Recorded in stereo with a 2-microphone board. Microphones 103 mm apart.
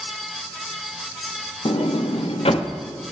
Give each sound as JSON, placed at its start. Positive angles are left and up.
{"t": 1.6, "sound": "a sliding door", "side_deg": 70, "distance_m": 0.5}